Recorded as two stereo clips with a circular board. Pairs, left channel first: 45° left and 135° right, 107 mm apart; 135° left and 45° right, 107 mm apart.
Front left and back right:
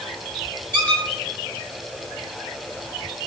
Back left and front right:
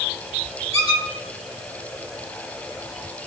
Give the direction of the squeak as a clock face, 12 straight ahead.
1 o'clock.